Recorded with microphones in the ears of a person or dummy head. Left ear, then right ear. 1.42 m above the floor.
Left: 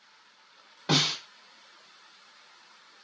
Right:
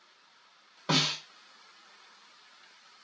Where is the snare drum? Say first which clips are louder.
Left 2 dB; 10° right (ahead or behind), 1.9 m.